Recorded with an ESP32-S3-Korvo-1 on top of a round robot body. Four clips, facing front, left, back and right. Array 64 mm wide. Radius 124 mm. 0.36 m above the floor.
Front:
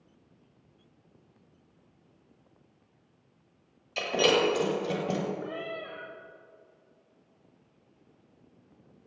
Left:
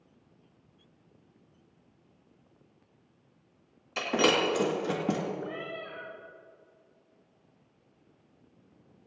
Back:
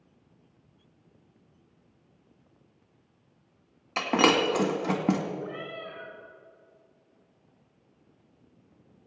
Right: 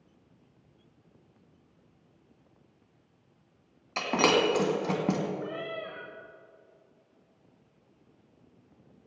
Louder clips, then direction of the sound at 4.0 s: Right 1 dB, back 2 dB; 160° right.